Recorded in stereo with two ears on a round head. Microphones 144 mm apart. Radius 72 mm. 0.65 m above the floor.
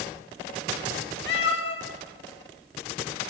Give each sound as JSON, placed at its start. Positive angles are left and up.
{"t": 1.3, "sound": "a cat meowing", "side_deg": 75, "distance_m": 1.0}